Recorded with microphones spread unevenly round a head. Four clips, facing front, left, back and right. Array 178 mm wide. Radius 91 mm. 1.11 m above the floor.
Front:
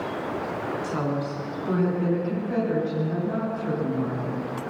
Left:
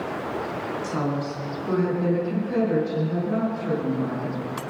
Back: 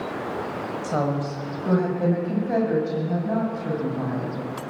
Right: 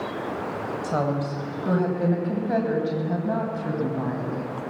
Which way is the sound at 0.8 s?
140° right.